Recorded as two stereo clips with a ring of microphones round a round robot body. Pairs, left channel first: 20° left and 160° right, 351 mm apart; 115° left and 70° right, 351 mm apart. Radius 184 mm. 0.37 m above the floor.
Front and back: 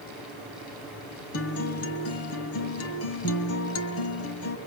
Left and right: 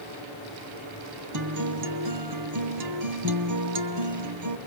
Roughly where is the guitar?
Ahead right.